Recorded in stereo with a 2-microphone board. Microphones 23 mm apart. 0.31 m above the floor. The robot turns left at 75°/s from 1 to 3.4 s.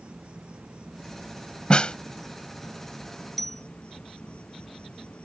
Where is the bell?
5° left (ahead or behind); by 3.6 s 10° left (ahead or behind).